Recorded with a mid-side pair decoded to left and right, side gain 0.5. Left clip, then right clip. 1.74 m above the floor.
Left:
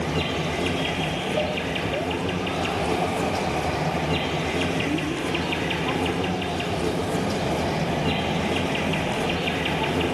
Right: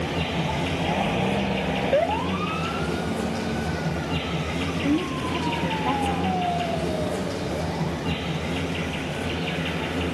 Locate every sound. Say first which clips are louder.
0.0 s an insect: left 1 dB; 40° left, 5 m
4.8 s a woman speaking: right 1 dB; 30° right, 2.5 m